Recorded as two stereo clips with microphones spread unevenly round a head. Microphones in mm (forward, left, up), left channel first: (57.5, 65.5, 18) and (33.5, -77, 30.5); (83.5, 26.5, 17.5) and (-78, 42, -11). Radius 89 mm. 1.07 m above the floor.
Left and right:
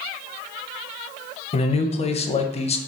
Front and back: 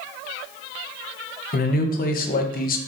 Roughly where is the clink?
I don't hear a clink.